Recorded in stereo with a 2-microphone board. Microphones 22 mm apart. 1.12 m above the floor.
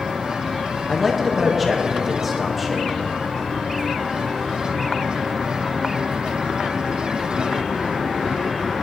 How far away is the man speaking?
About 1.5 m.